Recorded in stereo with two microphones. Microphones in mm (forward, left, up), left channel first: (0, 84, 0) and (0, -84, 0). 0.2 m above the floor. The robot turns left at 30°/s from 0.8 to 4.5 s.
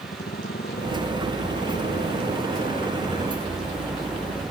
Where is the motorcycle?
110° left; by 4.5 s straight ahead.